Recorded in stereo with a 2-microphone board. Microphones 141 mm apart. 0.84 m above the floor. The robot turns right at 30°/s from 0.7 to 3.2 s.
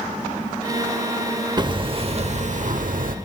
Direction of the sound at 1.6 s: 150° right.